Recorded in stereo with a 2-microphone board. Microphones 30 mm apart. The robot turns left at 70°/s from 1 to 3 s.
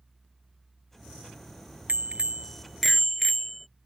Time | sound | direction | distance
1.9 | a bicycle bell | 105° right | ?